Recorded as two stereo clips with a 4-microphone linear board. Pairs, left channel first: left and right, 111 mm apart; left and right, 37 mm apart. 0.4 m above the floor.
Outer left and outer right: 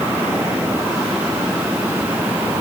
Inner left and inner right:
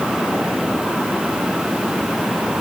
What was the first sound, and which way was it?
Only background noise.